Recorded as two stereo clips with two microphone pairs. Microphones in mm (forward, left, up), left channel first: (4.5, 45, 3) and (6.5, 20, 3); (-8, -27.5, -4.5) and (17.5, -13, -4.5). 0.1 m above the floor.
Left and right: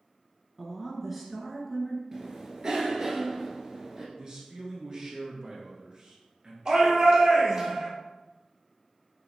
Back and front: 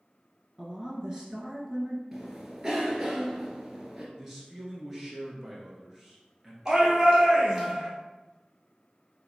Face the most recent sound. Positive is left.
turn(degrees=-30)